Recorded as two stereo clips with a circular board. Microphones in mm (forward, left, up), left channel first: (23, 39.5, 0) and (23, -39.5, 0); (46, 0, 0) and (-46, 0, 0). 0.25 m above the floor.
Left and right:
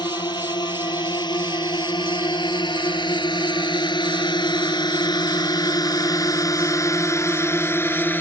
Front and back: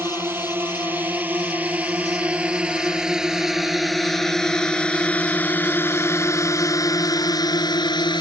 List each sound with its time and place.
0.0 s a drone: 115° left; by 8.2 s 30° left